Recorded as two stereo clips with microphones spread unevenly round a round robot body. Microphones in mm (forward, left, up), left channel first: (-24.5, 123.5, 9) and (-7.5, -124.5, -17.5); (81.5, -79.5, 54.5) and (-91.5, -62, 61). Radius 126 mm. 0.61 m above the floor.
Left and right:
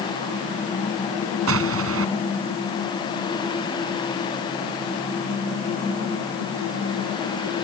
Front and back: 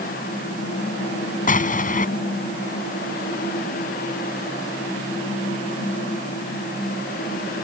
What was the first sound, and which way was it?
An explosion, 45° right.